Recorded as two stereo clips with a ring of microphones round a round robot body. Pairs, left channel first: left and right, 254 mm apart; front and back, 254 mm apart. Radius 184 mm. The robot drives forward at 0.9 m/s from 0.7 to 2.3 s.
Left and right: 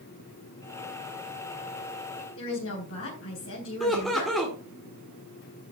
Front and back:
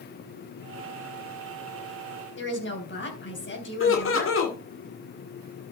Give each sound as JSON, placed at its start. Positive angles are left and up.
{"t": 2.4, "sound": "a woman speaking", "azimuth_deg": 40, "distance_m": 3.5}
{"t": 3.8, "sound": "laughter", "azimuth_deg": 0, "distance_m": 1.9}